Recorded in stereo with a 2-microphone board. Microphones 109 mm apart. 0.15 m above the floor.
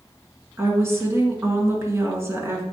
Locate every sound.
0.6 s a woman speaking: 25° right (ahead or behind), 1.6 m